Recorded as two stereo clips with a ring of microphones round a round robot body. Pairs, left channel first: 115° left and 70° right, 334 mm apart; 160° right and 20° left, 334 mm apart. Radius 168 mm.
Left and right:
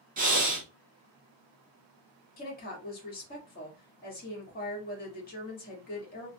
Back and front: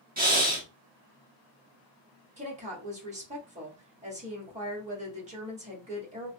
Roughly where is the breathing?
Ahead.